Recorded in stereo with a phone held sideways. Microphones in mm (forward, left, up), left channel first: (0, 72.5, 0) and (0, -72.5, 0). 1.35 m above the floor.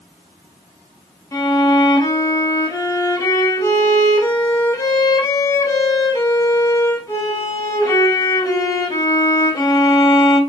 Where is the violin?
25° left (ahead or behind), 0.6 m.